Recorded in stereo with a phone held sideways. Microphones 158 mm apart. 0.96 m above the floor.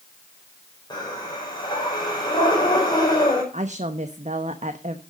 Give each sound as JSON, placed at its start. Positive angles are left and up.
{"t": 0.9, "sound": "breathing", "side_deg": 30, "distance_m": 4.5}
{"t": 3.5, "sound": "a woman speaking", "side_deg": -55, "distance_m": 0.9}